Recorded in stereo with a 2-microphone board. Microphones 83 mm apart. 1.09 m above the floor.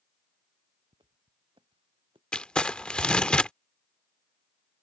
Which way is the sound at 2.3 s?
10° left (ahead or behind).